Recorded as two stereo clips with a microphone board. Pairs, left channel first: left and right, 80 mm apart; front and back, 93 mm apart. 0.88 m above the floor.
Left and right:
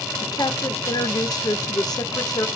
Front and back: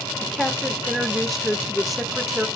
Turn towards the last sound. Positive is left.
turn(degrees=90)